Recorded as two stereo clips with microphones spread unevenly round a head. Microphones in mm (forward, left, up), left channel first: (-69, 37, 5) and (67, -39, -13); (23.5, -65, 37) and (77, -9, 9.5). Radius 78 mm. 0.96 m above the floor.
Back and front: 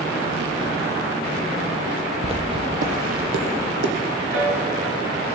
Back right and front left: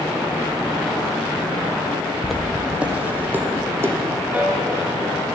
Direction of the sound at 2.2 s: 75° right.